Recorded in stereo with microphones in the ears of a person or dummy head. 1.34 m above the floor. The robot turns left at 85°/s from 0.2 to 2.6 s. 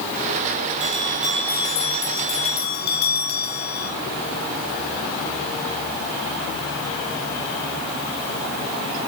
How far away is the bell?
About 2.5 m.